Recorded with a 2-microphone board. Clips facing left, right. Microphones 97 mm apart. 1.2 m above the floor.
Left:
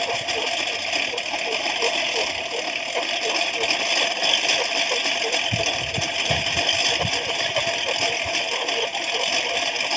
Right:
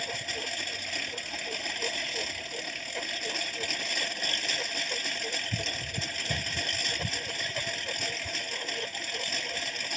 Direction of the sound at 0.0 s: 80° left.